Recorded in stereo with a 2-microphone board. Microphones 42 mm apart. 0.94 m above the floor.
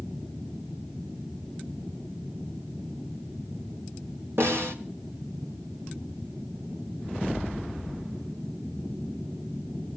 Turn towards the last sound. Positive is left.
turn(degrees=-75)  # may be behind; listen again after turning